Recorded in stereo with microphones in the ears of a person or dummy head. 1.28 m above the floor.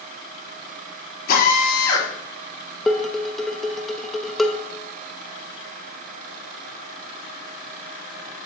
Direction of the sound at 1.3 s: 55° left (ahead or behind).